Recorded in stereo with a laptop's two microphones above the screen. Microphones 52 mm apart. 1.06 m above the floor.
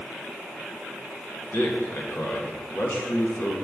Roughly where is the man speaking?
Left.